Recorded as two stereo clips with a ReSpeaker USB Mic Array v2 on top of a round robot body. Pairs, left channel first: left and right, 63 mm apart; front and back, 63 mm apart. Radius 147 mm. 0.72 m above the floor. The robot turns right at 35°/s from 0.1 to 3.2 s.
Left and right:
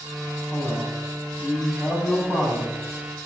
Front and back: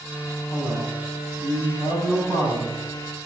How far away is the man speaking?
About 7.5 m.